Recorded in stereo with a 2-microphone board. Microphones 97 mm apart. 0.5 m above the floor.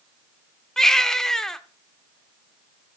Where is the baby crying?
5° left (ahead or behind), 0.7 m.